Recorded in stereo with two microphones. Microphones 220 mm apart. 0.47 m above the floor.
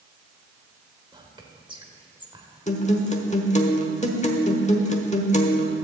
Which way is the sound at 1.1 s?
20° right (ahead or behind).